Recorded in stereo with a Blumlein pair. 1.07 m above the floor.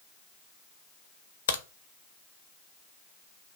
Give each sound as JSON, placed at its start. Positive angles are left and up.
{"t": 1.5, "sound": "a crack", "azimuth_deg": 60, "distance_m": 0.5}